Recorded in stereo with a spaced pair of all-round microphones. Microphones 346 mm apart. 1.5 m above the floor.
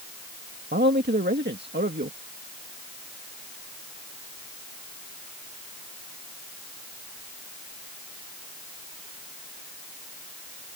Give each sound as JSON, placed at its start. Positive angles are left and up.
{"t": 0.7, "sound": "a man speaking", "side_deg": -30}